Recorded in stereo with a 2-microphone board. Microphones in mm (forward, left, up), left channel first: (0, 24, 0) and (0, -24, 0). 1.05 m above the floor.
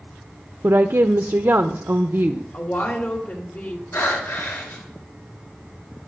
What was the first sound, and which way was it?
A woman speaking, 55° right (ahead or behind).